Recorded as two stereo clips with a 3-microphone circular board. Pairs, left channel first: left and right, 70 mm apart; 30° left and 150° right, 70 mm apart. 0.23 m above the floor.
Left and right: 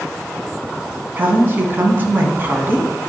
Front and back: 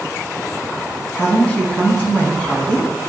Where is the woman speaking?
40° right, 2 m.